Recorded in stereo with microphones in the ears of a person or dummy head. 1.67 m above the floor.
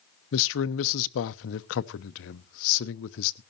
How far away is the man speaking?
About 0.7 m.